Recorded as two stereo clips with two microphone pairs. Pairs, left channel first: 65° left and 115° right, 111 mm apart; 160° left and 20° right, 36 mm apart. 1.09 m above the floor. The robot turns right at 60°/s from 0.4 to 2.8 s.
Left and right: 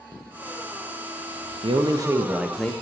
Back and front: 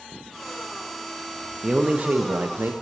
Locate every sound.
1.6 s a man speaking: 85° right, 0.6 m; by 2.7 s 15° right, 0.6 m